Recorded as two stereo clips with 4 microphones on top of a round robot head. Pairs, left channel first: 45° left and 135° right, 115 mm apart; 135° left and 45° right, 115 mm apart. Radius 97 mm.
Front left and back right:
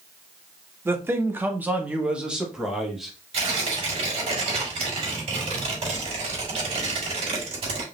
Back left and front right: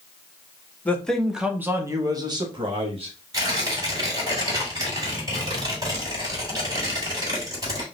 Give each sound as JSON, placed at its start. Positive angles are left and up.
{"t": 0.8, "sound": "a man speaking", "azimuth_deg": -170, "distance_m": 1.2}
{"t": 3.3, "sound": "tearing paper", "azimuth_deg": -105, "distance_m": 3.5}